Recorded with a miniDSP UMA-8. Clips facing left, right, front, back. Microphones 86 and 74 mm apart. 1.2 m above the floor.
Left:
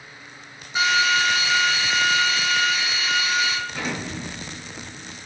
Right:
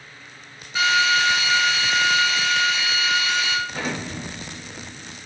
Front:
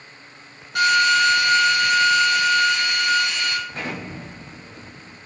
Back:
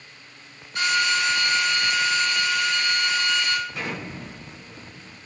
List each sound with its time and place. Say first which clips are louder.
0.8 s a drill: right 1 dB, front 6 dB; 20° left, 3.5 m
3.7 s an explosion: right 1 dB, front 1 dB; 50° right, 2 m